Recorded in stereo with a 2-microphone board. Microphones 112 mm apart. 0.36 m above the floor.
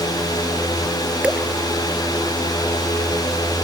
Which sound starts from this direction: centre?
Dripping, at 1.2 s.